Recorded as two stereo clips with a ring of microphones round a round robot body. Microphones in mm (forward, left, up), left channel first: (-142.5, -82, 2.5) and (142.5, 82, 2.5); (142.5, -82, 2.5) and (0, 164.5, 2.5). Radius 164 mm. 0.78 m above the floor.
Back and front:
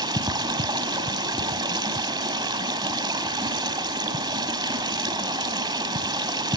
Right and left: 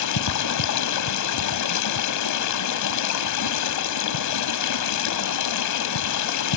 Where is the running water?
45° right, 1.2 m.